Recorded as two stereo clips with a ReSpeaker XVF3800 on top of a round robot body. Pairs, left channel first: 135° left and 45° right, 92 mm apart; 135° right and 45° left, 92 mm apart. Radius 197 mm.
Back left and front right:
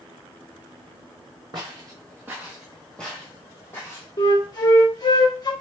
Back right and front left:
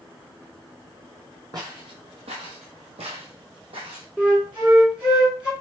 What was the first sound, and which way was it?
Footsteps, 5° right.